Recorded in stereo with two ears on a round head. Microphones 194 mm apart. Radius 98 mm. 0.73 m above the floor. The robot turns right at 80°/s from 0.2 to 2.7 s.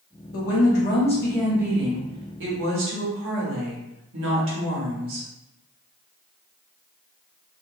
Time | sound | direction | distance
0.3 | a woman speaking | 90° left | 1.1 m